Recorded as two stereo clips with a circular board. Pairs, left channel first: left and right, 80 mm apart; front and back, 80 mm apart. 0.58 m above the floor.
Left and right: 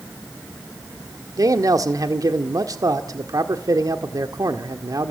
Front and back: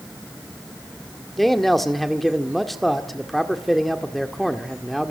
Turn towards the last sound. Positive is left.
turn(degrees=-85)